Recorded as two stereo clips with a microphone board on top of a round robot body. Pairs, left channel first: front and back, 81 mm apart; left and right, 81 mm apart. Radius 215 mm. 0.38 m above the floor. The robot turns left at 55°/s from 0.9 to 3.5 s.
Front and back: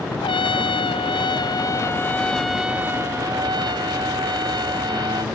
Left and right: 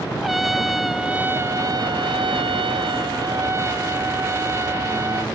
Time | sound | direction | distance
0.2 | a trumpet | straight ahead | ?